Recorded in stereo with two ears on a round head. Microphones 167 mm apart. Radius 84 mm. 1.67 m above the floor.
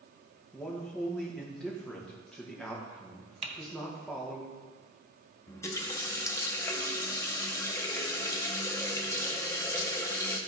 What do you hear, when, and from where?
0.5 s a man speaking: 5° left (ahead or behind), 1.6 m
3.4 s typing on a keyboard: 35° right (ahead or behind), 1.0 m
5.5 s a running tap: 15° left (ahead or behind), 0.7 m